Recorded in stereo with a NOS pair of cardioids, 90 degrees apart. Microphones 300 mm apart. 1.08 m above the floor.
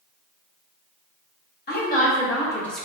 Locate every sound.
1.7 s a woman speaking: 30° left, 1.3 m; by 2.9 s straight ahead, 0.9 m